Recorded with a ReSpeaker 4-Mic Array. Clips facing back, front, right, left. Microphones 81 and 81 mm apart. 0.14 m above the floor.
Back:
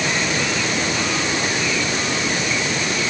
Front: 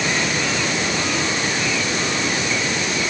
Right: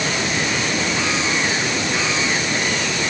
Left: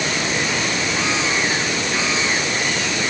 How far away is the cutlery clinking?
No cutlery clinking in this recording.